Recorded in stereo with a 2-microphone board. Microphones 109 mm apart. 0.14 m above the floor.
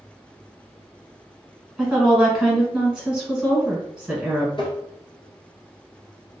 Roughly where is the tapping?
Left.